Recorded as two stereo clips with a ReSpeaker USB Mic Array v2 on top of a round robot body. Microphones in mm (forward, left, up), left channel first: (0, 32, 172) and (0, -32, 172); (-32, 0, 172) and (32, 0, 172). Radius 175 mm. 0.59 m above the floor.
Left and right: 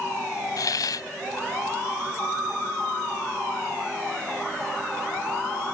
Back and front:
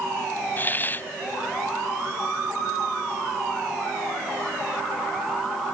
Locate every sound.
0.6 s a hiss: 115° left